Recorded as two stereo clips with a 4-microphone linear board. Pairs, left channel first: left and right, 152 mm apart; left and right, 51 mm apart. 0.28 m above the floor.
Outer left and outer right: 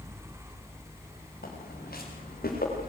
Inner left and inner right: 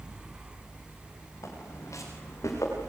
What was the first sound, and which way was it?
Footsteps, 85° left.